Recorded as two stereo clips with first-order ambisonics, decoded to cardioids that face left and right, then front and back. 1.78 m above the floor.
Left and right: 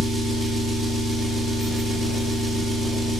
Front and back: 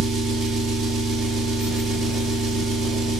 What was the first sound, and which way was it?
An engine running, 170° left.